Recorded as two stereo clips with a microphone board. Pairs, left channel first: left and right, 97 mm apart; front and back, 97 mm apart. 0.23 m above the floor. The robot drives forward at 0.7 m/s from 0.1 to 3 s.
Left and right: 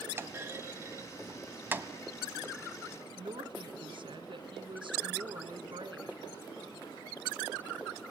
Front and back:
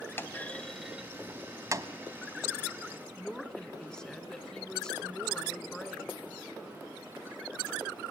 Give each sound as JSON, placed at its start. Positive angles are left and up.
{"t": 0.2, "sound": "a clunk", "azimuth_deg": -45, "distance_m": 1.0}
{"t": 3.2, "sound": "a woman speaking", "azimuth_deg": -80, "distance_m": 2.5}